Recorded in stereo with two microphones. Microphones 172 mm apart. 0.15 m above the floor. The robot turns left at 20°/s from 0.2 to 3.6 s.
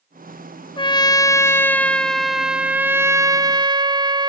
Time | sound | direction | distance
0.8 | a trumpet | 30° left | 0.6 m